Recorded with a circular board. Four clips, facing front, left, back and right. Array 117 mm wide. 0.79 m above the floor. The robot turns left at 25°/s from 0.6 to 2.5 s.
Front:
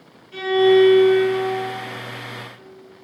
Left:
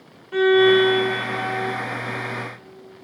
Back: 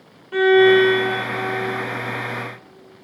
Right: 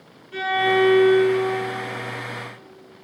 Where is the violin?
150° left, 1.2 m; by 1.7 s 125° left, 1.2 m.